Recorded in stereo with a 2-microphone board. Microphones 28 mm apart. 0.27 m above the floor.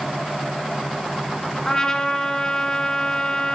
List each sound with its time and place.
1.6 s a trumpet: 20° left (ahead or behind), 1.6 m